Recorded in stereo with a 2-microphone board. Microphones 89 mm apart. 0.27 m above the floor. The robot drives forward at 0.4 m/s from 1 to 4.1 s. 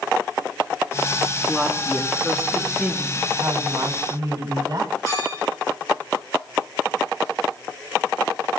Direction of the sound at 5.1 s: 40° left (ahead or behind).